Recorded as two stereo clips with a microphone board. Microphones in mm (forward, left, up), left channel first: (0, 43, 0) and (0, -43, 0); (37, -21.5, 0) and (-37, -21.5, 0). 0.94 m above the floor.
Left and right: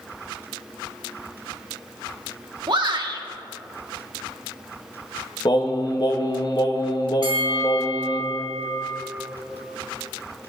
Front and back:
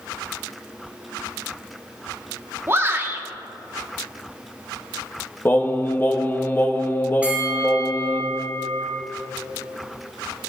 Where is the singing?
60° left, 1.1 m.